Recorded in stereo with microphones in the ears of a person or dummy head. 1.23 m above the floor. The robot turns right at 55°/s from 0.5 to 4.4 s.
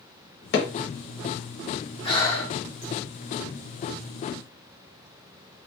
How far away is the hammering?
About 0.9 m.